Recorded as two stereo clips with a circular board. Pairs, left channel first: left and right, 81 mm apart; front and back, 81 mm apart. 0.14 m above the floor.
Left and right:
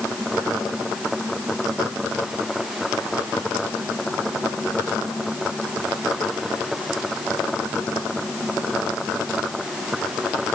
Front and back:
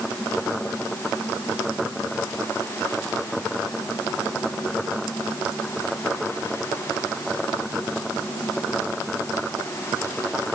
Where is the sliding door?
No sliding door in this recording.